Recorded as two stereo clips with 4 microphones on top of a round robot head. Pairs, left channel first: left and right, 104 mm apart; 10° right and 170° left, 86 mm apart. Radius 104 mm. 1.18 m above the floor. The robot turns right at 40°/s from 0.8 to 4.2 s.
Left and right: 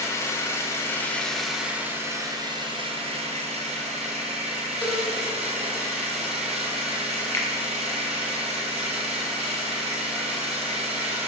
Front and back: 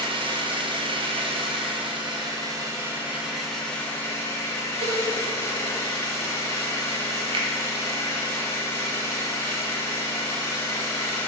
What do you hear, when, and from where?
0.0 s an engine running: 155° left, 1.8 m; by 11.3 s 70° right, 1.8 m
4.8 s a cowbell: 165° left, 2.5 m
7.3 s a finger snap: 155° left, 1.6 m